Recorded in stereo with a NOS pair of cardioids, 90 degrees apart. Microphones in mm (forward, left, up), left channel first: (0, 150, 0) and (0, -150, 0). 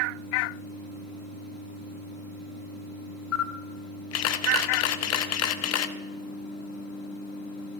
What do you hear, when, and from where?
3.3 s a camera shutter: 55° left, 0.8 m